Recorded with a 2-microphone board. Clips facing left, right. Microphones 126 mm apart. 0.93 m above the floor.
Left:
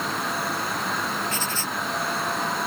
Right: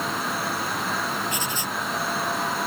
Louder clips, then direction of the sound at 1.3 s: Even; 15° right (ahead or behind).